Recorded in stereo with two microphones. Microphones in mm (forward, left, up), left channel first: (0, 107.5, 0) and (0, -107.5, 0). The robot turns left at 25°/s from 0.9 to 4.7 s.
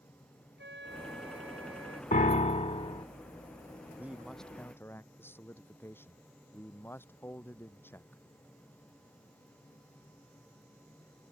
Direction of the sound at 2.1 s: 40° left (ahead or behind).